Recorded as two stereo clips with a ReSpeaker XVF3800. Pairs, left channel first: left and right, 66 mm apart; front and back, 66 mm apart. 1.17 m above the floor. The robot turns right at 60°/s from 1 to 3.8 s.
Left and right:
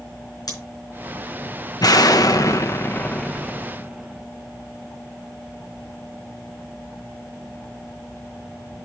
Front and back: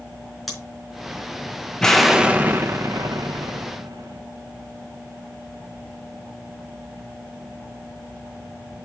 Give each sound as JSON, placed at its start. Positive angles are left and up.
{"t": 0.5, "sound": "scissors", "azimuth_deg": 90, "distance_m": 4.0}
{"t": 1.8, "sound": "an explosion", "azimuth_deg": 80, "distance_m": 0.9}